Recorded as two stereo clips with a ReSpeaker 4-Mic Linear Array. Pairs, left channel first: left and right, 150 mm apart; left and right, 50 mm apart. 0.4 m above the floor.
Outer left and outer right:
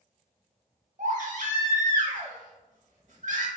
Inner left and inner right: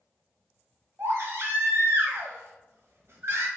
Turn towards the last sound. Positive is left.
turn(degrees=-55)  # may be behind; listen again after turning